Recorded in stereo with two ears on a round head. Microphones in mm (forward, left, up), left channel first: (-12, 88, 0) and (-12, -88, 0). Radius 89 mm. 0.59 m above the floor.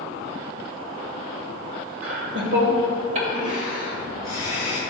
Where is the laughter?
70° right (ahead or behind), 1.9 m; by 4.8 s 15° right (ahead or behind), 4 m.